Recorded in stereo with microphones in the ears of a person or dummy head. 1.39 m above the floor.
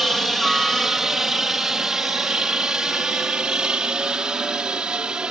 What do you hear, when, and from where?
0.0 s a helicopter: centre (ahead or behind); by 5.3 s 5° right (ahead or behind)